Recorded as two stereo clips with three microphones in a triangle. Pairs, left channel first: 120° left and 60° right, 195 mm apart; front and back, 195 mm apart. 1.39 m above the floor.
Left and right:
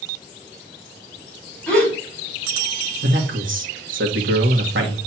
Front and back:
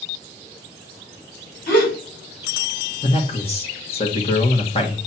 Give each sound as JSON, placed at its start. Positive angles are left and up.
{"t": 1.7, "sound": "a gasp", "azimuth_deg": 40, "distance_m": 5.0}
{"t": 3.0, "sound": "a man speaking", "azimuth_deg": -60, "distance_m": 1.7}